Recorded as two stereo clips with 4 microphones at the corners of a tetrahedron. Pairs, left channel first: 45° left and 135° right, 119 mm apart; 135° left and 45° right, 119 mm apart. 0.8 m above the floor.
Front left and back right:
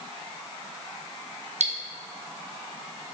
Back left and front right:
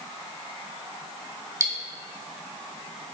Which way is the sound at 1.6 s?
110° right.